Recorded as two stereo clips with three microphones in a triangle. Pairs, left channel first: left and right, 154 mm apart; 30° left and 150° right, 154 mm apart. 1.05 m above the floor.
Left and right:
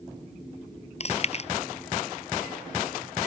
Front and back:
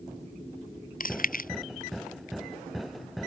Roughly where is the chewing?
Ahead left.